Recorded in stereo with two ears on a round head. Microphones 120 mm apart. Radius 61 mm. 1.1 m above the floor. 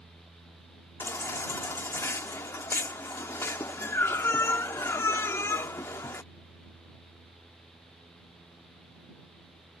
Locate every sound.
1.0 s a baby crying: 20° left (ahead or behind)